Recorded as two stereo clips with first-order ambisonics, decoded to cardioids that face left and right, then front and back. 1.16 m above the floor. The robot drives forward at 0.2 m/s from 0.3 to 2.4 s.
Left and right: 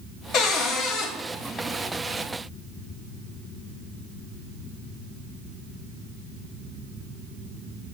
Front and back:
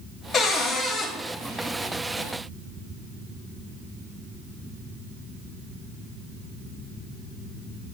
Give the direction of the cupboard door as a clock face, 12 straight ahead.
10 o'clock.